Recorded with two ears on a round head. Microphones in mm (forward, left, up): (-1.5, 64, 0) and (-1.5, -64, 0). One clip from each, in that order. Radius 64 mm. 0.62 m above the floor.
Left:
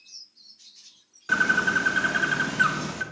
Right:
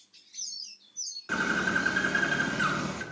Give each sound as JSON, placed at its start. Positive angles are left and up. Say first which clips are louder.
{"t": 1.3, "sound": "a bird", "louder": "left 6 dB", "side_deg": 15, "distance_m": 1.2}